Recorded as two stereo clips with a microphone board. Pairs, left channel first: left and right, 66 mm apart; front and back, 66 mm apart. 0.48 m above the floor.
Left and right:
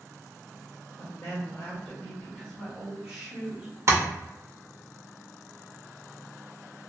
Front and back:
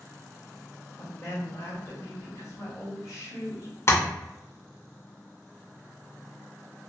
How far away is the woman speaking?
About 1.5 m.